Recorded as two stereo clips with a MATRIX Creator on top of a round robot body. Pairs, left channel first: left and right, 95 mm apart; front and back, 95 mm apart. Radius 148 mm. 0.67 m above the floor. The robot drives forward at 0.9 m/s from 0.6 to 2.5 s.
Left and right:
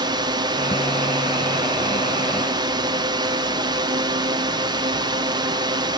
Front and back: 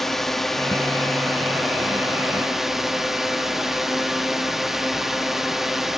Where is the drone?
90° right; by 6.0 s 95° right.